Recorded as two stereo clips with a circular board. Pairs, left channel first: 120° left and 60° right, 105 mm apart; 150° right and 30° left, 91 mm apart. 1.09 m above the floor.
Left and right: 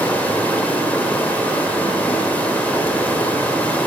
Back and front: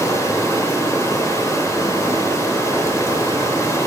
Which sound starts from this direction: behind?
Running water, at 0.0 s.